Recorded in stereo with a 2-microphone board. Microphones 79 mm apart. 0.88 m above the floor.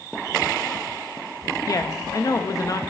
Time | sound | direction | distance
1.7 | a woman speaking | 45° left (ahead or behind) | 0.6 m